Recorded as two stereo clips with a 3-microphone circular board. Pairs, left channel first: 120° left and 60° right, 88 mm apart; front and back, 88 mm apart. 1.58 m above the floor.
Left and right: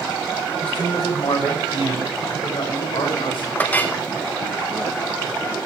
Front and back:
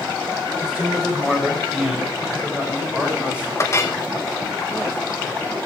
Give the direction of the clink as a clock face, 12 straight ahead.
10 o'clock.